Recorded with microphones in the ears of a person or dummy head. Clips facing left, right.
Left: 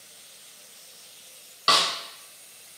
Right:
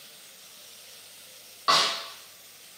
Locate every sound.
1.7 s a snare drum: 35° left (ahead or behind), 1.0 m